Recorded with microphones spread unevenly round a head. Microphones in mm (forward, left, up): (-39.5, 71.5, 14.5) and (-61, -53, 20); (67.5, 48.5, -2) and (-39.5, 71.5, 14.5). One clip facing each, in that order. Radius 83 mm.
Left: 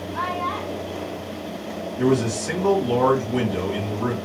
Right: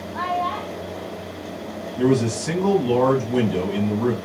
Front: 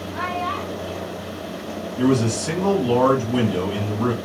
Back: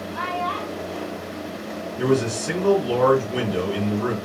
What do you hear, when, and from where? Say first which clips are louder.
0.1 s a child speaking: right 3 dB, even; 45° right, 2.5 m
2.0 s a man speaking: right 1 dB, front 2 dB; 50° right, 2.5 m